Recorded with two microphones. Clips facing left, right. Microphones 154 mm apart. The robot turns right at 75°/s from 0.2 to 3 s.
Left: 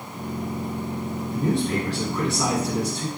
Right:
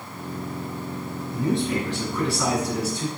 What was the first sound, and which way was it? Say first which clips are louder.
A man speaking: even; 75° left.